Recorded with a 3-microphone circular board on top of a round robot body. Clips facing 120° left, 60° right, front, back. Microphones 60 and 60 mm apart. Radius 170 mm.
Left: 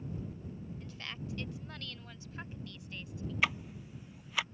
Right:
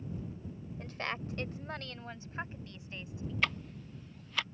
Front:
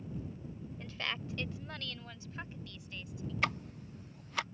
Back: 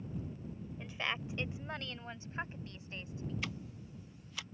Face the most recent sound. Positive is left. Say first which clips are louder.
# left 1 dB, front 8 dB
turn(degrees=40)